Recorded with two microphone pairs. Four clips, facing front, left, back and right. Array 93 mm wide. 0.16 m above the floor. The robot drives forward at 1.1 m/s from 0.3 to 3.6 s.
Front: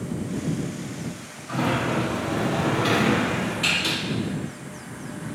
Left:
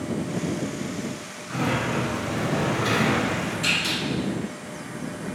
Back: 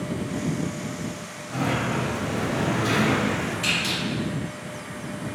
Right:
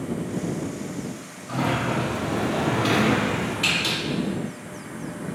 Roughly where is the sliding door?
Ahead right.